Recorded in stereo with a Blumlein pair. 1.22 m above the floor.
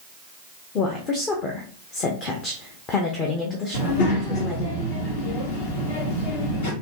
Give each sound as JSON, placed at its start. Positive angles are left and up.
{"t": 0.8, "sound": "a woman speaking", "azimuth_deg": 30, "distance_m": 0.8}
{"t": 3.7, "sound": "a child speaking", "azimuth_deg": 55, "distance_m": 1.4}